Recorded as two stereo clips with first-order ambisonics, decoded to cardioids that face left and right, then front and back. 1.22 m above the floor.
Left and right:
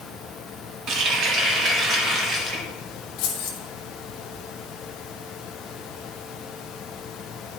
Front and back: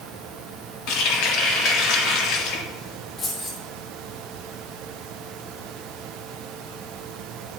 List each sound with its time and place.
0.9 s a running tap: 35° right, 1.6 m
3.2 s keys jangling: 65° left, 3 m